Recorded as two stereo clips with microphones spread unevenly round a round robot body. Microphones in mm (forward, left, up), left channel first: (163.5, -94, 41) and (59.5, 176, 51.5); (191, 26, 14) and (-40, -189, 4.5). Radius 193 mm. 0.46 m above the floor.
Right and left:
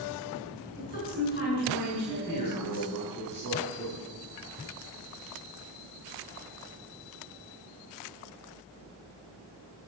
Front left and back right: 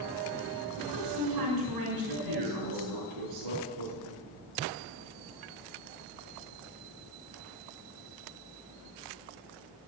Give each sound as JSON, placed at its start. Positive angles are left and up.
{"t": 0.8, "sound": "a woman speaking", "azimuth_deg": -140, "distance_m": 7.0}
{"t": 2.1, "sound": "a man speaking", "azimuth_deg": -145, "distance_m": 6.0}